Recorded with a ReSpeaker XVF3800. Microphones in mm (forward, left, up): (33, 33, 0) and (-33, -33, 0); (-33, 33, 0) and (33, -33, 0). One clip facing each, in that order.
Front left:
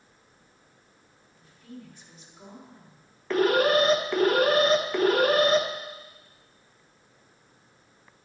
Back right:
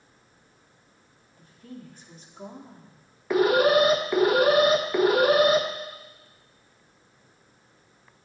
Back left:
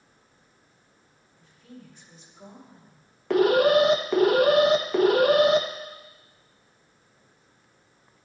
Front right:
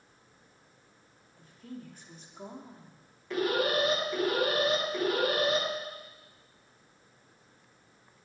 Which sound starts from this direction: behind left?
An alarm, at 3.3 s.